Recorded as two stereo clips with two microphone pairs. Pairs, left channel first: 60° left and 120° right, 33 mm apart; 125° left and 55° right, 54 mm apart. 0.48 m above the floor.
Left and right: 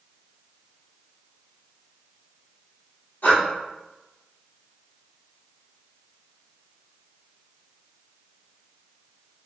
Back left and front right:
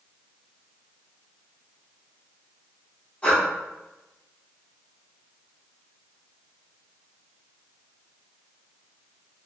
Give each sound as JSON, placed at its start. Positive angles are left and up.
{"t": 3.2, "sound": "breathing", "azimuth_deg": 55, "distance_m": 1.7}